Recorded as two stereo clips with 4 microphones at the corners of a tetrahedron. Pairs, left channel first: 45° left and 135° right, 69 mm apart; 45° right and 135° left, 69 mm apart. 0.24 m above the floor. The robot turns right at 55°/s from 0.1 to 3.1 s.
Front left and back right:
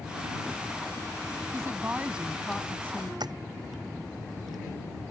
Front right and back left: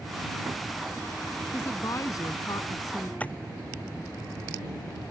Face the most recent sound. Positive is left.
turn(degrees=-115)